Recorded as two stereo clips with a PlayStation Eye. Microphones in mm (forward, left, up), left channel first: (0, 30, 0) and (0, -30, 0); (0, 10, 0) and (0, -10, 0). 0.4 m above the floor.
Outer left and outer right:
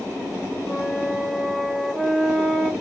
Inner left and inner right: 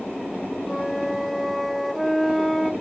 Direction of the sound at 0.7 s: Centre (ahead or behind).